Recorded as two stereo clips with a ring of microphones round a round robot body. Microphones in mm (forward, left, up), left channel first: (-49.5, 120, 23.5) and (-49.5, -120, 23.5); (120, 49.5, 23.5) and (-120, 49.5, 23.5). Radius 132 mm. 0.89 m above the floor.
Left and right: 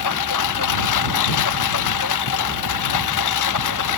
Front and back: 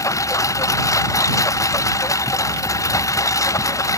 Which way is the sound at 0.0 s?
75° left.